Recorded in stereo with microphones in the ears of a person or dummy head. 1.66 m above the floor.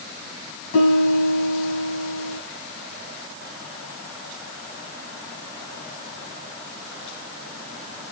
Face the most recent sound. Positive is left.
turn(degrees=70)  # may be behind; listen again after turning